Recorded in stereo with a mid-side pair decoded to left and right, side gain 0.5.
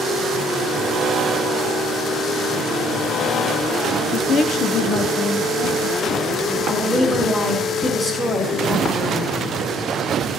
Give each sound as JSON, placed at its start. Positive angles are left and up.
{"t": 4.1, "sound": "a woman speaking", "azimuth_deg": 40, "distance_m": 0.9}
{"t": 6.7, "sound": "a woman speaking", "azimuth_deg": 15, "distance_m": 3.0}